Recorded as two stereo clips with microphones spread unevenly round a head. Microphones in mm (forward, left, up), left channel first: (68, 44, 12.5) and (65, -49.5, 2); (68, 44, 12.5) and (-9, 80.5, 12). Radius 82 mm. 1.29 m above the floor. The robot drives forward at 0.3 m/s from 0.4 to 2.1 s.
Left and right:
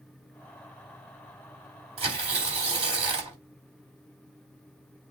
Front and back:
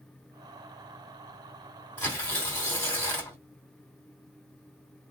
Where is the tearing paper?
105° right, 1.7 m.